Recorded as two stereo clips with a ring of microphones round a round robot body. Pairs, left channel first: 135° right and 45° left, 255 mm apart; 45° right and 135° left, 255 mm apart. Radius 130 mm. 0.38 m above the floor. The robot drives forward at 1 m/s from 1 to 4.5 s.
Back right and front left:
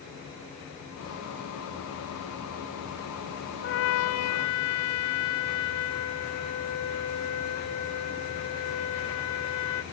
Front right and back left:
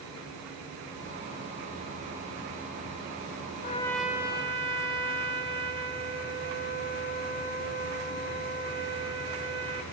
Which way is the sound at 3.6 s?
100° right.